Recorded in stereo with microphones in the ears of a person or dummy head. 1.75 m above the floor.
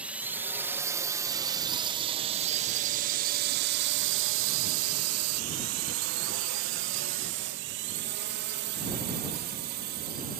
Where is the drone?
10° right (ahead or behind); by 10.4 s 50° right (ahead or behind).